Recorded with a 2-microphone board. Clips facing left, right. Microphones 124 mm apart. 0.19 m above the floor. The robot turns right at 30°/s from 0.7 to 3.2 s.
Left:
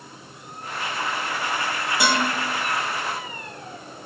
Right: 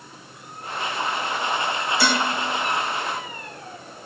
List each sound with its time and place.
2.0 s dishes clattering: 20° left (ahead or behind), 3 m; by 2.2 s 25° left (ahead or behind), 3 m